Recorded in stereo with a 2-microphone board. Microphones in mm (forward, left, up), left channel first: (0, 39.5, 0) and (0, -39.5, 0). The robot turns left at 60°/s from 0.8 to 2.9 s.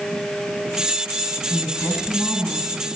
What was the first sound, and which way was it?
A woman speaking, 60° left.